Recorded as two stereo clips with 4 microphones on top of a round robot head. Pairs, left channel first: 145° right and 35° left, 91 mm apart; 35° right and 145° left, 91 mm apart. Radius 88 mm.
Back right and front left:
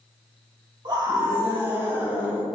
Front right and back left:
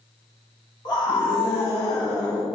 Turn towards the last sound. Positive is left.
turn(degrees=-40)